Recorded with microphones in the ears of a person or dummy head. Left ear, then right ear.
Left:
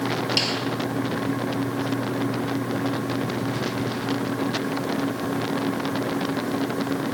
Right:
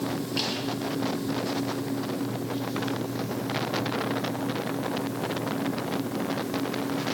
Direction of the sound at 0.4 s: 35° left (ahead or behind).